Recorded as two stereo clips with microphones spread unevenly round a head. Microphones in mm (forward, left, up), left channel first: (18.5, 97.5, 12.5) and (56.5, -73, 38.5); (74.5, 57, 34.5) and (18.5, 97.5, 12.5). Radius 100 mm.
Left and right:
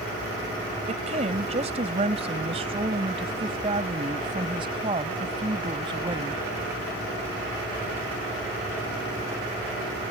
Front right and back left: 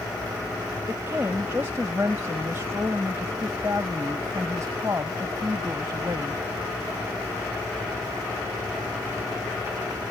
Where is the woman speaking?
135° right; by 6.4 s 145° right.